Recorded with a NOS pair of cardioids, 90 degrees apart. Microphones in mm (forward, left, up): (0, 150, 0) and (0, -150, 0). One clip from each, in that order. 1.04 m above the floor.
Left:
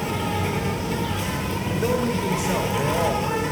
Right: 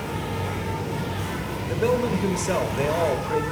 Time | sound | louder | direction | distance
0.0 | an insect | left 4 dB | 65° left | 5.5 m
1.6 | a man speaking | right 2 dB | 30° right | 3.5 m